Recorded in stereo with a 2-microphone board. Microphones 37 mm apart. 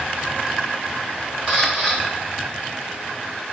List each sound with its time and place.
1.5 s a camera shutter: 10° right (ahead or behind), 1.7 m